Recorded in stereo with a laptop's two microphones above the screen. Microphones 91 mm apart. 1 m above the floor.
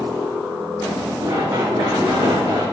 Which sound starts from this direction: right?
Running footsteps, at 1.2 s.